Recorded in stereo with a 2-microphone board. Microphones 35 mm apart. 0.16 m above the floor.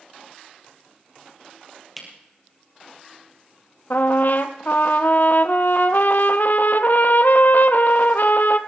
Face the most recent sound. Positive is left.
turn(degrees=60)  # may be behind; listen again after turning